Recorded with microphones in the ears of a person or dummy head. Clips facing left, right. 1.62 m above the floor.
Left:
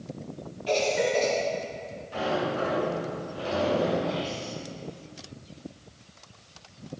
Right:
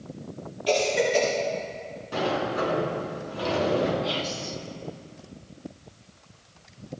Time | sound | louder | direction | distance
0.7 | a cough | right 2 dB | 55° right (ahead or behind) | 3.5 m
2.1 | a sliding door | right 1 dB | 80° right | 6.5 m
4.0 | whispering | even | 50° right (ahead or behind) | 0.6 m